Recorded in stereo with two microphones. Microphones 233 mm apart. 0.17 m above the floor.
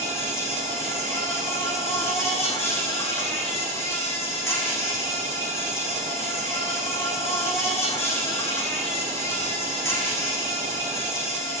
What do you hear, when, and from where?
0.0 s an insect: 10° left (ahead or behind), 4 m